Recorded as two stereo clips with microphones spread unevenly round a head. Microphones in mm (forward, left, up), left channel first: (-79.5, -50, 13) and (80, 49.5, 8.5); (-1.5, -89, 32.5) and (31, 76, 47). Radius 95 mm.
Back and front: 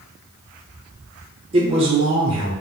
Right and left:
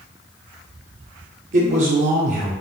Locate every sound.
1.5 s a man speaking: 80° left, 0.9 m